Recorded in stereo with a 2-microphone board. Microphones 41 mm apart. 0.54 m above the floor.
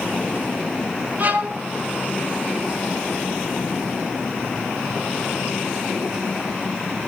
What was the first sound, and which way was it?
A violin, 45° right (ahead or behind).